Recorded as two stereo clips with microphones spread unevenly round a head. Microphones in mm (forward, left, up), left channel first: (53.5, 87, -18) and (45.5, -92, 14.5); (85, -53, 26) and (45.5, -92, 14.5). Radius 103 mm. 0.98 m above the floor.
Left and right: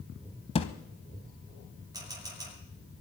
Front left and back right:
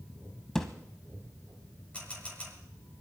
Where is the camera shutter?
20° right, 7 m.